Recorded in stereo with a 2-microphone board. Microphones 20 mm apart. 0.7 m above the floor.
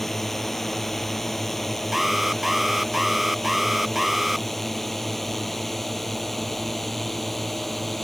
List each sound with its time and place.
0.0 s a drone: 10° left (ahead or behind); by 8.1 s 5° left (ahead or behind)
1.9 s an alarm: 15° right (ahead or behind)